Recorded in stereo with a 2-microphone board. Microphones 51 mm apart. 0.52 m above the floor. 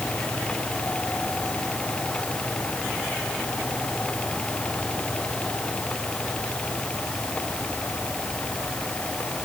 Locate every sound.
Only background noise.